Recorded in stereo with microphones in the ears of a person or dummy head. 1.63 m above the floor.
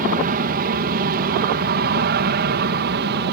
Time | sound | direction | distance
0.0 | an aircraft | 45° right (ahead or behind) | ?